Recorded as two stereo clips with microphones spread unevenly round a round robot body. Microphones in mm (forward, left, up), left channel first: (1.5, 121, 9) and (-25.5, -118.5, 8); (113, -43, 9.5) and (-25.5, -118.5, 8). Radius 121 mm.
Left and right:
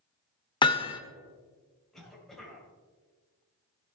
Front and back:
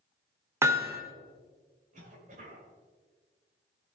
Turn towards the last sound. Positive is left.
turn(degrees=170)